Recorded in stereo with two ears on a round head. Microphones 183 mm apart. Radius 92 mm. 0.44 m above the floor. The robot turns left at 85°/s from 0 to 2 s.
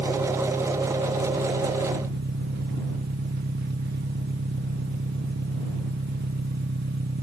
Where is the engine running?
45° left; by 7.2 s 125° right.